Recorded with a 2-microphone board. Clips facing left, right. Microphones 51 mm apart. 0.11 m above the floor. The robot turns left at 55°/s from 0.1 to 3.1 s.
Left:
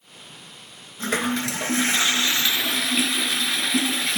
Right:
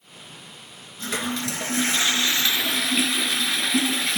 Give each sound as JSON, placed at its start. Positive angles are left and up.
{"t": 1.0, "sound": "a toilet flushing", "azimuth_deg": 105, "distance_m": 0.5}